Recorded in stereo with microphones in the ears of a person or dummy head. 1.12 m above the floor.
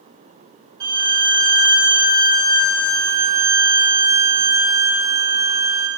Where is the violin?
25° right (ahead or behind), 1.4 m.